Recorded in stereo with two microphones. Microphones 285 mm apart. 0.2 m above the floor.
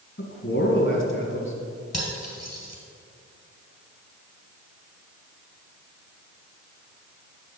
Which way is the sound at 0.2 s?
45° left (ahead or behind).